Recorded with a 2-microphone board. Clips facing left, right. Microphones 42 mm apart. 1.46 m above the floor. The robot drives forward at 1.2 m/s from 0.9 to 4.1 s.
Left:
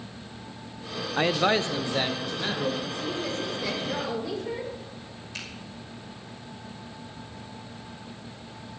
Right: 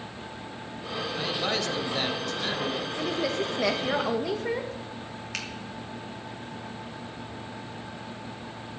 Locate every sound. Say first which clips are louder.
1.2 s a man speaking: left 7 dB; 50° left (ahead or behind), 0.5 m; by 2.9 s 10° left (ahead or behind), 2.5 m
3.0 s a woman speaking: right 3 dB; 75° right (ahead or behind), 2.0 m; by 4.8 s 65° right (ahead or behind), 2 m
5.3 s a finger snap: right 3 dB; 85° right, 3 m